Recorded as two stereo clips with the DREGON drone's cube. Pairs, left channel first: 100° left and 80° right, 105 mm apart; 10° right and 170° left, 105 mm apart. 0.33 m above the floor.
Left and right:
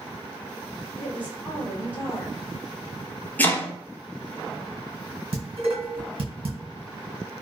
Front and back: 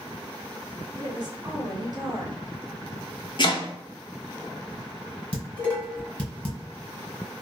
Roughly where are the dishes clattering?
Right.